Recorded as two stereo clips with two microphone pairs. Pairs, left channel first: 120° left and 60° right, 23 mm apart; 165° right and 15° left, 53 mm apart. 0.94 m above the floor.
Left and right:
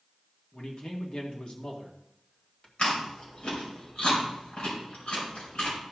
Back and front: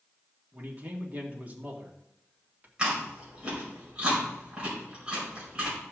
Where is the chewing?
85° left, 5 m.